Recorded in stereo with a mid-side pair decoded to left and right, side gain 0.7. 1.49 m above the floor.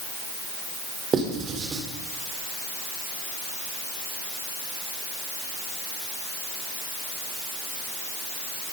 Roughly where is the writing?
Ahead right.